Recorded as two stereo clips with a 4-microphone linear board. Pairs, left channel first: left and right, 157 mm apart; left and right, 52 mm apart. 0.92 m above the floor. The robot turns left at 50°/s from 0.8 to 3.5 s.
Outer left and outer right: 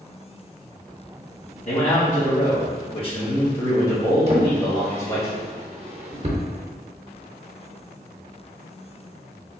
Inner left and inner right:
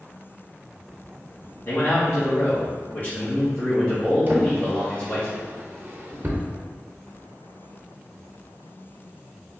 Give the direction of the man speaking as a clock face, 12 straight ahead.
8 o'clock.